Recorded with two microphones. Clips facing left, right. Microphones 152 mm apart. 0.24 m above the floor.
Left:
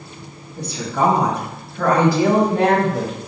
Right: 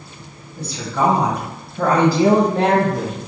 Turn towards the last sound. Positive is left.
turn(degrees=-45)  # may be behind; listen again after turning